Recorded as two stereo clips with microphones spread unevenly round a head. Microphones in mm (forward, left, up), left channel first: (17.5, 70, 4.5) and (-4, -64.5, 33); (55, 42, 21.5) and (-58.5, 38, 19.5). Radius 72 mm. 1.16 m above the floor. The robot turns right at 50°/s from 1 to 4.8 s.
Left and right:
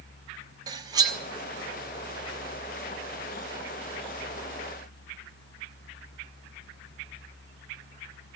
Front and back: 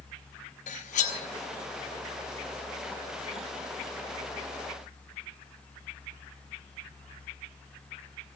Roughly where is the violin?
No violin in this recording.